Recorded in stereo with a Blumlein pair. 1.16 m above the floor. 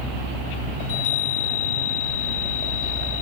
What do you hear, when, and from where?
0.8 s a chime: 50° left, 5 m